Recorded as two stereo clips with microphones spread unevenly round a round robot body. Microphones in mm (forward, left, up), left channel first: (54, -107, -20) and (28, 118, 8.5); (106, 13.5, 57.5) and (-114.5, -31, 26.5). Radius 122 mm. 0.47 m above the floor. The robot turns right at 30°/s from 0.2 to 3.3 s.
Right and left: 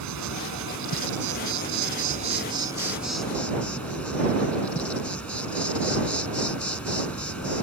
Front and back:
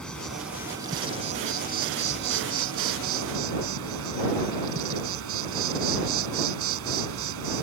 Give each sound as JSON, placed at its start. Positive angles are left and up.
{"t": 0.0, "sound": "an insect", "azimuth_deg": 100}